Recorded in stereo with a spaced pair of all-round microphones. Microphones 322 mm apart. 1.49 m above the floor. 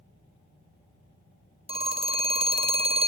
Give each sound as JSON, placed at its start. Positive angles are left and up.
{"t": 1.7, "sound": "a phone ringing", "side_deg": -20, "distance_m": 0.6}